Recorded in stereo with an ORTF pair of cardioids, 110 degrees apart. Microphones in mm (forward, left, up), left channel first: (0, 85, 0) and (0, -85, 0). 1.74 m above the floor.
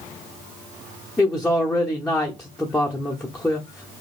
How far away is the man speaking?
About 0.8 m.